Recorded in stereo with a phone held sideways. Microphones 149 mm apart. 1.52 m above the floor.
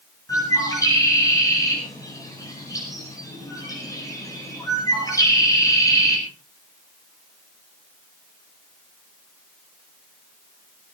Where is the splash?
No splash in this recording.